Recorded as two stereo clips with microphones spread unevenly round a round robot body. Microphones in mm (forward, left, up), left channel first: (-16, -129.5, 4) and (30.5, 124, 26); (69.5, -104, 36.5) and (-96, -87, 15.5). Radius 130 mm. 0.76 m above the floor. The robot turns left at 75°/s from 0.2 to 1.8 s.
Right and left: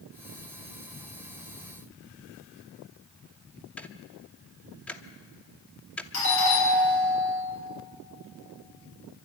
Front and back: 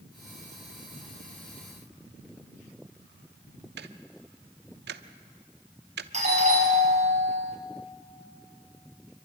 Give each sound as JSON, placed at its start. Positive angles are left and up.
{"t": 3.8, "sound": "ticking", "azimuth_deg": 175, "distance_m": 0.9}
{"t": 6.1, "sound": "a doorbell", "azimuth_deg": -140, "distance_m": 7.0}